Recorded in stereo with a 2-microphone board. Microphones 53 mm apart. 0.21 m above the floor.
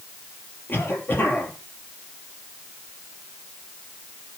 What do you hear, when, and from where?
0.7 s a cough: 40° left (ahead or behind), 4 m